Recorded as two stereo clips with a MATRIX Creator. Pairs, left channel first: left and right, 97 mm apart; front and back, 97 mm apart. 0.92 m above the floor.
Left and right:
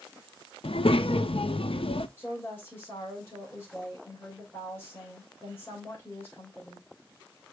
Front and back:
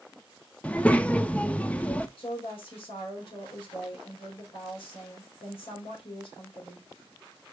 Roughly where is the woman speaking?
Ahead.